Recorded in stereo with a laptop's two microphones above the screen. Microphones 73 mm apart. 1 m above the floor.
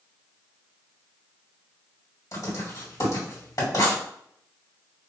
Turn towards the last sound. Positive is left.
turn(degrees=50)  # may be behind; listen again after turning